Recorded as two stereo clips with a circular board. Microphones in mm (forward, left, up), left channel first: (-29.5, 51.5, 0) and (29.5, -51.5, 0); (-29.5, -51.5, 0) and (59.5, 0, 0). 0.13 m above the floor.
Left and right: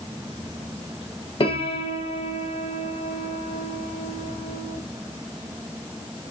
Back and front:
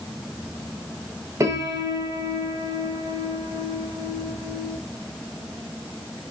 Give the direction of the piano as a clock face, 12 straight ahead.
9 o'clock.